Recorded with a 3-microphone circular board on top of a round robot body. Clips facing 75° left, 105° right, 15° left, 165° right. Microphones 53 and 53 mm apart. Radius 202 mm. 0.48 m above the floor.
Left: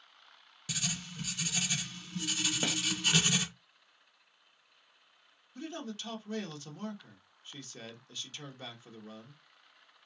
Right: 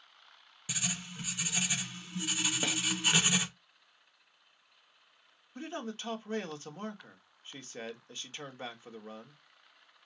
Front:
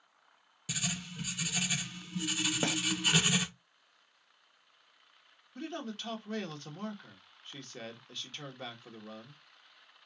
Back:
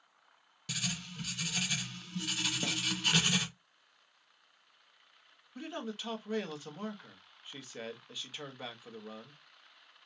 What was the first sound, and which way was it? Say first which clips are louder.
Writing: right 1 dB, front 1 dB; 60° right.